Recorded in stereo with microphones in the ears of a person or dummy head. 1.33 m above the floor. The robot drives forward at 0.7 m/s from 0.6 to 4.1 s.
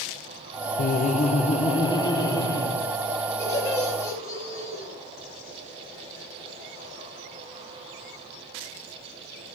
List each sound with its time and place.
0.8 s laughter: 45° left (ahead or behind), 0.6 m; by 2.8 s 15° left (ahead or behind), 1.8 m
3.4 s laughter: 15° left (ahead or behind), 6.5 m